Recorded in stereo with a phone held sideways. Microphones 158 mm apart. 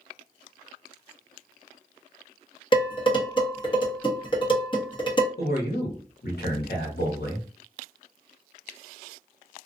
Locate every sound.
2.7 s dishes clattering: 30° left (ahead or behind), 1.0 m
5.4 s a man speaking: 80° left, 1.2 m